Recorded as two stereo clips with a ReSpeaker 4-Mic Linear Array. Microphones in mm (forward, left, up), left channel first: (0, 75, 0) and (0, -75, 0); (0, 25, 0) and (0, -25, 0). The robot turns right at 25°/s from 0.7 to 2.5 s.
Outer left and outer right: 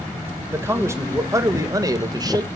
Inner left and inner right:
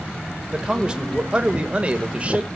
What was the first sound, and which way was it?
A man speaking, 15° right (ahead or behind).